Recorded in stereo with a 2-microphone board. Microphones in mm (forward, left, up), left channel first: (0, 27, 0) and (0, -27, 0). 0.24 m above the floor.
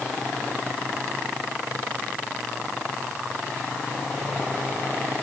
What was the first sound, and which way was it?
Only background noise.